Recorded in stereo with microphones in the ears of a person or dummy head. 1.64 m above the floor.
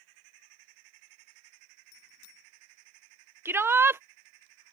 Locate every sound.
1.9 s a bicycle bell: 75° left (ahead or behind)
3.5 s a shout: 5° right (ahead or behind)